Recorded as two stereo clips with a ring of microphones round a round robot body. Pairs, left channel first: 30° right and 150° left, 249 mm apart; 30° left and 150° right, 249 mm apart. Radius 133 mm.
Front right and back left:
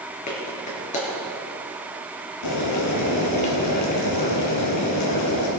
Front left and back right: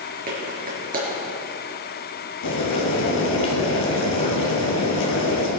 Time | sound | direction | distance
0.3 | a clap | 90° right | 5 m
2.4 | boiling | 10° right | 4 m